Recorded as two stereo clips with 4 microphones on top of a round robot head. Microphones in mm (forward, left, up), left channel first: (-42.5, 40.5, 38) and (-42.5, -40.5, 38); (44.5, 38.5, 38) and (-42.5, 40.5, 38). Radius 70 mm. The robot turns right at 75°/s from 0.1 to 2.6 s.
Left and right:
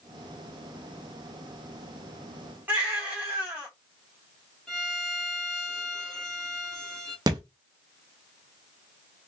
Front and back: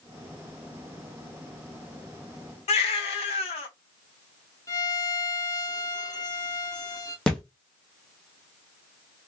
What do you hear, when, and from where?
2.7 s a baby crying: 15° right, 0.9 m
4.7 s a violin: 5° left, 1.4 m
7.3 s a thud: 85° right, 0.5 m